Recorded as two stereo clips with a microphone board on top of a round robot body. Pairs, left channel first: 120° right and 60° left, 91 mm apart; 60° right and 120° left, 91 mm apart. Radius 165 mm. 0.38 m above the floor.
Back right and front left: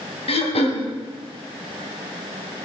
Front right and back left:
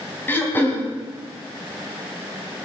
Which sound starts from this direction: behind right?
Throat clearing, at 0.3 s.